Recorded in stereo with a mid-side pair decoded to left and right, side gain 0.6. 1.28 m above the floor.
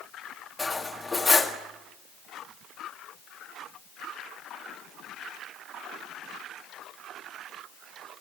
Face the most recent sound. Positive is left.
turn(degrees=20)